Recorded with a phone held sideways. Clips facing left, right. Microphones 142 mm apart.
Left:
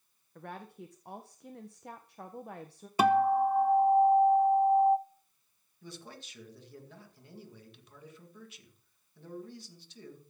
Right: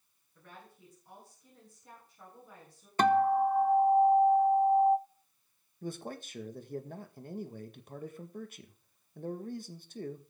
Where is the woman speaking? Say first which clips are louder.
Left 9 dB; 70° left (ahead or behind), 1.4 m.